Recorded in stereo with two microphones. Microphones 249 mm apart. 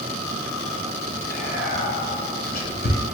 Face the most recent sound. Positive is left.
turn(degrees=40)  # may be behind; listen again after turning